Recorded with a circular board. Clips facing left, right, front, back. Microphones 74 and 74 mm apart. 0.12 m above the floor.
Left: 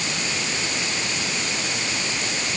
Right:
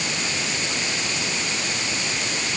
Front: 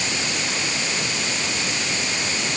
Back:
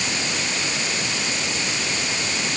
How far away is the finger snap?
No finger snap in this recording.